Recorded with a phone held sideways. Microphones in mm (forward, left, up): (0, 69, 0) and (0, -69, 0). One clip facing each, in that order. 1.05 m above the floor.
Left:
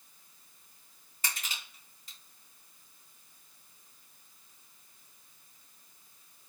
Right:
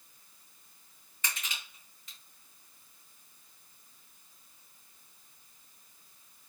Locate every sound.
1.2 s crushing: 35° left (ahead or behind), 2 m